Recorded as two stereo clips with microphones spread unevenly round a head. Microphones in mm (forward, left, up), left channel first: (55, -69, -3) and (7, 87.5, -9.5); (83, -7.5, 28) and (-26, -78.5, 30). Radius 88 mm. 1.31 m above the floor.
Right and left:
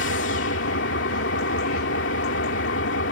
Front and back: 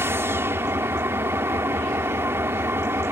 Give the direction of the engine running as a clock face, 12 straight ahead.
3 o'clock.